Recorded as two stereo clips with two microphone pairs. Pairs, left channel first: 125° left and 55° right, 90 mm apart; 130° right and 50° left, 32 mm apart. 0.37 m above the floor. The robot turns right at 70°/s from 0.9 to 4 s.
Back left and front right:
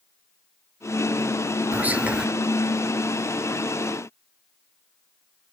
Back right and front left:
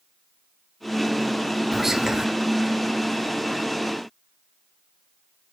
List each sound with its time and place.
1.7 s whispering: 20° right, 0.9 m; by 2.2 s 15° left, 0.9 m